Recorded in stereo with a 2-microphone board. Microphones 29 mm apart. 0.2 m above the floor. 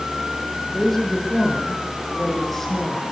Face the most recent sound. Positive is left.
turn(degrees=10)  # may be behind; listen again after turning